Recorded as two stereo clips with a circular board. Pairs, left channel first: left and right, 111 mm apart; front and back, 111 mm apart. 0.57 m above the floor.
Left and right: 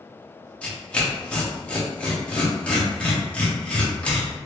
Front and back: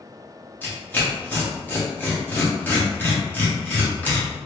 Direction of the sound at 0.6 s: 35° left.